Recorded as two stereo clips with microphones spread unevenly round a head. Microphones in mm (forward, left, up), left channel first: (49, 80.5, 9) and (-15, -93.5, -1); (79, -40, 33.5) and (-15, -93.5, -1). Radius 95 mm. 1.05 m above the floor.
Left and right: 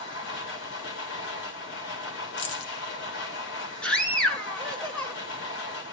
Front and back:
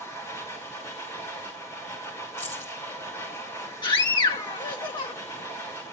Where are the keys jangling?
105° left, 1.7 m.